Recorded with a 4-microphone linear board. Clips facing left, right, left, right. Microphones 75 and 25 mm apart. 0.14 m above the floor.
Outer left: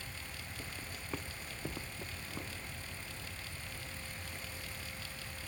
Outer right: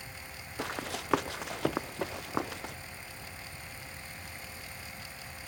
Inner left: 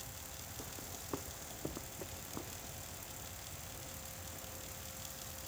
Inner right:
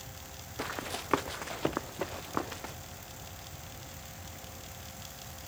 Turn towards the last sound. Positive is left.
turn(degrees=-90)